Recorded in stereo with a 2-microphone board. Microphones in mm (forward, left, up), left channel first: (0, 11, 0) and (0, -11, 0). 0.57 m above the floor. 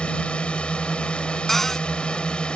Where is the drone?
50° left (ahead or behind); by 2.6 s 40° left (ahead or behind).